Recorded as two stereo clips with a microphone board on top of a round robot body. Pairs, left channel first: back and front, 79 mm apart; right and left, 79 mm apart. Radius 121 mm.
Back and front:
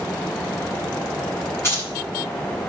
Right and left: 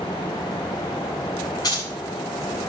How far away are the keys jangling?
About 6 m.